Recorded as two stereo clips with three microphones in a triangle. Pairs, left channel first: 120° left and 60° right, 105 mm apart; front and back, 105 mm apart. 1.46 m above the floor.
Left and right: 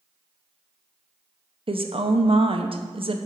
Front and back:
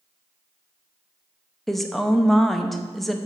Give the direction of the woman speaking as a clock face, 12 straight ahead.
3 o'clock.